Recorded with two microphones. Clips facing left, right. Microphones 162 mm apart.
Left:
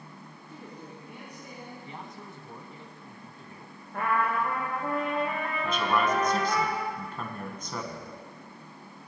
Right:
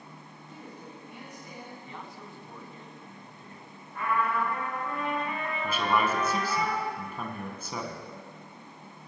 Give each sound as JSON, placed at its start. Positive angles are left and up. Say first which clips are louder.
{"t": 0.5, "sound": "a woman speaking", "louder": "left 1 dB", "side_deg": 20, "distance_m": 4.0}
{"t": 1.9, "sound": "a man speaking", "louder": "left 1 dB", "side_deg": 20, "distance_m": 1.0}
{"t": 3.9, "sound": "a trumpet", "louder": "left 1 dB", "side_deg": 65, "distance_m": 2.5}
{"t": 5.6, "sound": "a man speaking", "louder": "even", "side_deg": -10, "distance_m": 1.2}